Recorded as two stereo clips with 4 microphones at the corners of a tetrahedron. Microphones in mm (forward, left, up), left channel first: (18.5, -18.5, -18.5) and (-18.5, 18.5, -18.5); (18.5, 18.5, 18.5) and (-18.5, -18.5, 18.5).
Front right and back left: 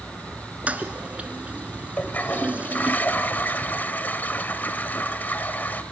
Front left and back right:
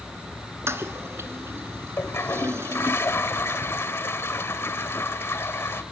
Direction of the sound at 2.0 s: 10° left.